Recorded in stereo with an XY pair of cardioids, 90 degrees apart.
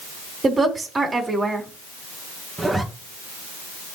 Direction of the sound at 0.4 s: 30° right.